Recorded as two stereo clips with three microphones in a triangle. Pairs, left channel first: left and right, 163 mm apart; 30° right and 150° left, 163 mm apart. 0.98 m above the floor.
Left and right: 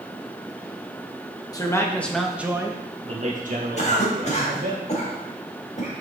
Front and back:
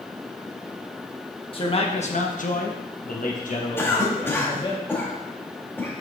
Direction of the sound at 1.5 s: 25° left.